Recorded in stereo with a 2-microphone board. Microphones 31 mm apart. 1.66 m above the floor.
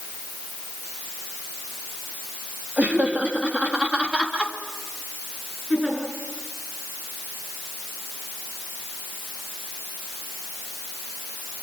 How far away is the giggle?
About 9 m.